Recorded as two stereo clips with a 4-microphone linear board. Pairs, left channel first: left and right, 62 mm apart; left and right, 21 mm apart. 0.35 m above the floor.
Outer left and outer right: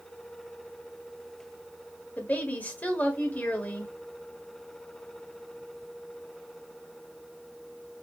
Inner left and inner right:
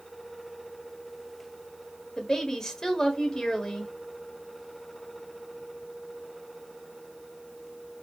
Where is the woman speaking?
30° left (ahead or behind), 1.3 m.